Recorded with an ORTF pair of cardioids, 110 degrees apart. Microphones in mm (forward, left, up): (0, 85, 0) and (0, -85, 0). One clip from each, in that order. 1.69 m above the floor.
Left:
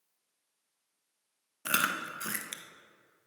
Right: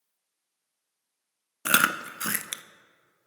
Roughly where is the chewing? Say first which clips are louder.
Right 7 dB; ahead right.